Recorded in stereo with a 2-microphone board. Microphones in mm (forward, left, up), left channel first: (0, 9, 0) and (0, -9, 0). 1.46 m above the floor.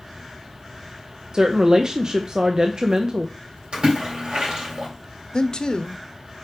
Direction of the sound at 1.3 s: 40° right (ahead or behind).